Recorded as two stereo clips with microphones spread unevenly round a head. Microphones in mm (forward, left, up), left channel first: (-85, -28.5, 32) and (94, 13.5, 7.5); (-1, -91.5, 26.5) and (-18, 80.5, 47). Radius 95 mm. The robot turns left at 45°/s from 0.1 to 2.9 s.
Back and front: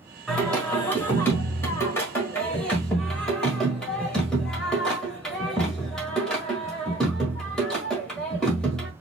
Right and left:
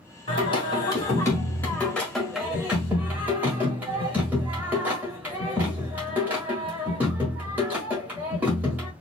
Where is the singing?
105° right, 1.6 m; by 8.9 s 135° left, 1.6 m.